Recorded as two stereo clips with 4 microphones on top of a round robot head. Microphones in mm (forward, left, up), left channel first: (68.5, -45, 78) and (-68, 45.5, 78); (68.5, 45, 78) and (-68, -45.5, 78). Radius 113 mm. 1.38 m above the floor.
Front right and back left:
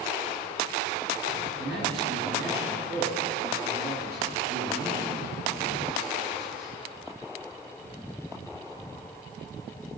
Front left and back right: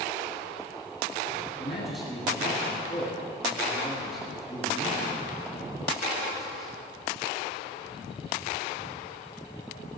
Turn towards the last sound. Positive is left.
turn(degrees=125)